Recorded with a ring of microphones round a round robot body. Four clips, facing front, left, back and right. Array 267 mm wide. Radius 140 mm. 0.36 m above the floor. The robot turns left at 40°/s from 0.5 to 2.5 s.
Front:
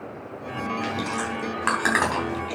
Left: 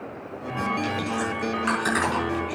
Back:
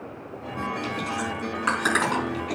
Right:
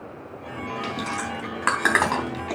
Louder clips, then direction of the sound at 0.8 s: Left 2 dB, front 1 dB; 35° right.